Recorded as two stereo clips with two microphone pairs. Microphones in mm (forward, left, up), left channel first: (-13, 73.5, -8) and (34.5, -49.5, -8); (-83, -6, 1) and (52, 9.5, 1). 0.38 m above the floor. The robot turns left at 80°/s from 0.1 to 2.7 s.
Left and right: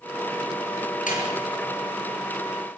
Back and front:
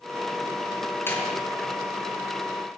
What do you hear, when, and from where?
1.1 s a door slam: 115° left, 5.5 m; by 1.4 s 90° left, 5.5 m